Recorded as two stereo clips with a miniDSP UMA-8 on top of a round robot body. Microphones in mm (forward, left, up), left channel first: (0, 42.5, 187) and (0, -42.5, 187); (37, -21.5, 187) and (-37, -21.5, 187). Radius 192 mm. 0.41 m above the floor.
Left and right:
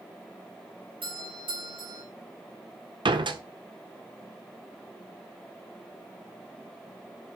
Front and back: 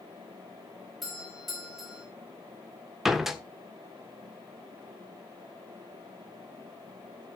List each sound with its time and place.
1.0 s a doorbell: 90° right, 5 m
3.0 s a door slam: 95° right, 1.5 m